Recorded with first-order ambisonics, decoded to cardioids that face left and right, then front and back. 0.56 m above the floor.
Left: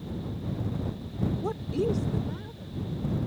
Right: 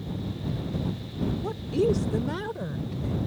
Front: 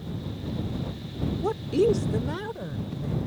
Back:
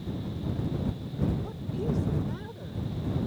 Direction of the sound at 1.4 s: 15° left.